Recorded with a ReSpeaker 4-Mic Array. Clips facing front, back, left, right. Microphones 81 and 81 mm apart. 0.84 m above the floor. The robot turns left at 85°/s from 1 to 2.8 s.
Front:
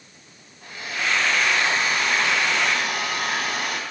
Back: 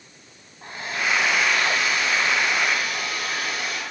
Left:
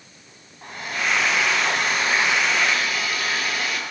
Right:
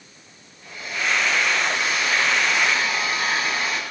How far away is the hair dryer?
About 3 m.